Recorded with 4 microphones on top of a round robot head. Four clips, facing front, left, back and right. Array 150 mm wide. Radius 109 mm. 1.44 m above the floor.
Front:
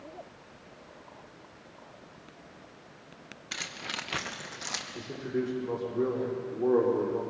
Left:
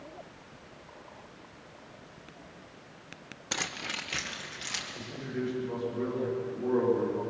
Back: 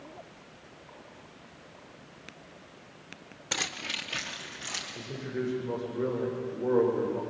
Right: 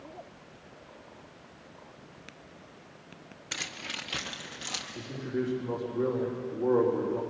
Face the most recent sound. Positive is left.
turn(degrees=-30)